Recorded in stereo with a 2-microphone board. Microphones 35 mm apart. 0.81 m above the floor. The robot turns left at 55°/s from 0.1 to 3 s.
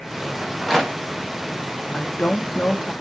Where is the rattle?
10° right (ahead or behind), 1.1 m; by 1.0 s 5° left (ahead or behind), 1.1 m.